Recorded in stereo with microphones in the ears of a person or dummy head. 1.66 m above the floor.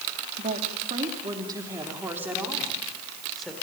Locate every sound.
0.4 s a woman speaking: 45° right (ahead or behind), 2.5 m; by 3.5 s centre (ahead or behind), 4.5 m